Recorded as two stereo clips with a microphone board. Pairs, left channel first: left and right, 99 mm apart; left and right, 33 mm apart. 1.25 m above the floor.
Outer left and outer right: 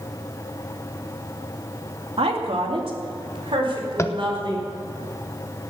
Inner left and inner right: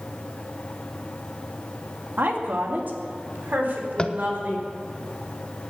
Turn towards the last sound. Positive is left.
turn(degrees=30)  # may be behind; listen again after turning